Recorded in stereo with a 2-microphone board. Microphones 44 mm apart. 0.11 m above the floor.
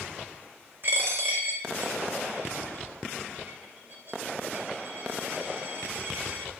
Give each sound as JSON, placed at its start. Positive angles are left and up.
{"t": 0.8, "sound": "a dropped coin", "side_deg": -45, "distance_m": 0.7}